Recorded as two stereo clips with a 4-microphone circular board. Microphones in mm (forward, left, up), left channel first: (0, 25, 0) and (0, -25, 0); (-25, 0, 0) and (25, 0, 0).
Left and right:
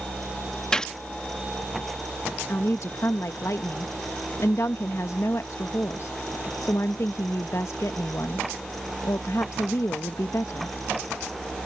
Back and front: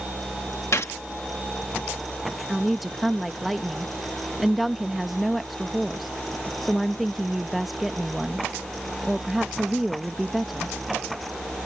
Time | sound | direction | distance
0.7 | a gunshot | 165° left | ?
2.5 | a woman speaking | 85° left | ?